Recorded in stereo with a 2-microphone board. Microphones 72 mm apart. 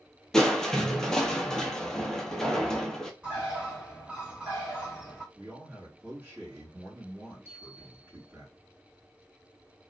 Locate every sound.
0.3 s crushing: 5° left (ahead or behind), 0.7 m
3.2 s a bird: 15° right (ahead or behind), 1.8 m
5.3 s a man speaking: 20° right (ahead or behind), 1.5 m
7.5 s a bell: 25° left (ahead or behind), 2 m